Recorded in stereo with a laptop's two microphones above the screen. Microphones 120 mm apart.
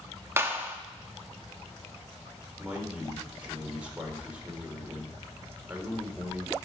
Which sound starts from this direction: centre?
A man speaking, at 2.6 s.